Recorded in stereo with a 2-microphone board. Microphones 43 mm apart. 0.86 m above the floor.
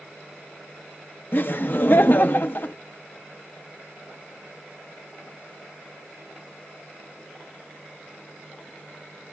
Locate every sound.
1.3 s laughter: 45° left (ahead or behind), 0.7 m